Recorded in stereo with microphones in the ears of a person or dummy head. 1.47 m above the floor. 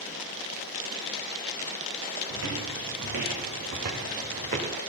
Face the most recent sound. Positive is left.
turn(degrees=-35)  # may be behind; listen again after turning